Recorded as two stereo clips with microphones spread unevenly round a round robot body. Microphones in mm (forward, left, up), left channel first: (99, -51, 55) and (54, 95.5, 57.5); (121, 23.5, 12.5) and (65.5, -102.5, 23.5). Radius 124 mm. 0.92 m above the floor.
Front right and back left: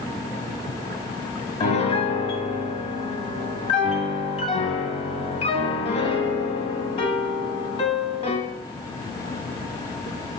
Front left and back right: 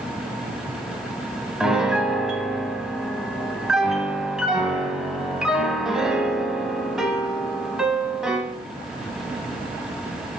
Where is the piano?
35° right, 0.9 m.